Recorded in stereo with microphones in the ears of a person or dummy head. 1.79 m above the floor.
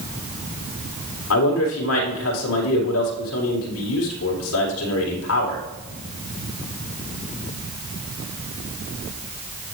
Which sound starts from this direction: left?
A man speaking, at 1.3 s.